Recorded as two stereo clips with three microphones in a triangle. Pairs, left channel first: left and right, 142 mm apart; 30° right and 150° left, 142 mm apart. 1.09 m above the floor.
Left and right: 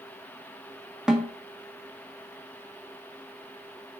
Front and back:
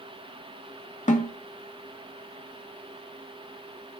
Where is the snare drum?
5° right, 1.5 m.